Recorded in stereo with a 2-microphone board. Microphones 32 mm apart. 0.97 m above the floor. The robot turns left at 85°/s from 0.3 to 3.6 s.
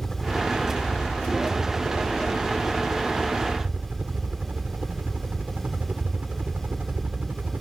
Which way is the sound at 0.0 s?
150° left.